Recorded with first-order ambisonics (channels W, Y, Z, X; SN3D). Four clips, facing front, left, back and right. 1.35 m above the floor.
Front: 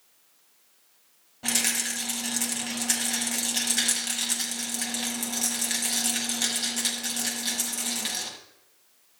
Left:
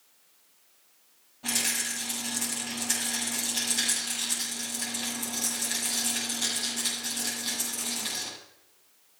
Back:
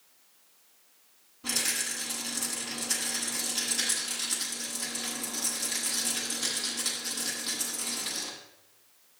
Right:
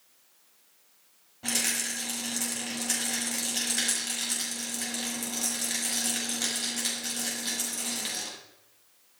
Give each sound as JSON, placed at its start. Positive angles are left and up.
{"t": 1.4, "sound": "a rattle", "azimuth_deg": -15, "distance_m": 7.5}